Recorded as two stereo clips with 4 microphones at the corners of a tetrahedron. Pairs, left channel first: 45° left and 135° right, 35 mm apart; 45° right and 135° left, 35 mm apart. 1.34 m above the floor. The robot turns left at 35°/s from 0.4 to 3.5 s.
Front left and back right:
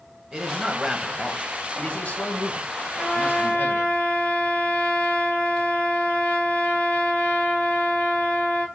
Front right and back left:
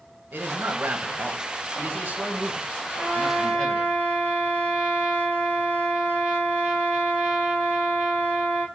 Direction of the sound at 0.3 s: 155° left.